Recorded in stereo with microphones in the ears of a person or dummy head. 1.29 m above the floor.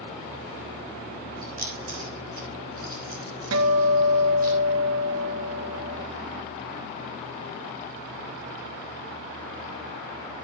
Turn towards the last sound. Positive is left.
turn(degrees=-75)  # may be behind; listen again after turning